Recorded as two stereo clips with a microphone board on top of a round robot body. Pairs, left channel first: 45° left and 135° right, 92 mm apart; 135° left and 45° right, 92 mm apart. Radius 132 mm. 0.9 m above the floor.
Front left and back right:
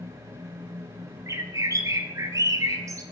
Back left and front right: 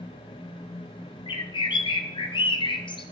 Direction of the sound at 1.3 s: 170° left.